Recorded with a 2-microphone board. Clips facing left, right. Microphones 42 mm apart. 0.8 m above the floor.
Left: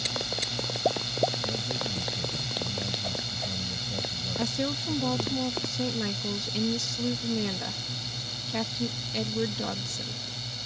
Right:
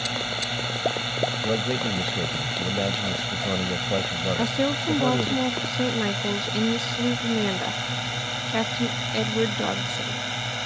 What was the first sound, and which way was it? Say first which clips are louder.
A drone: right 5 dB; 40° right (ahead or behind).